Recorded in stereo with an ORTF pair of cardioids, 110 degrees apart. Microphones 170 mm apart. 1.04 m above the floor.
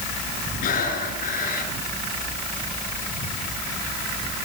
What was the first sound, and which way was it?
Breathing, 55° left.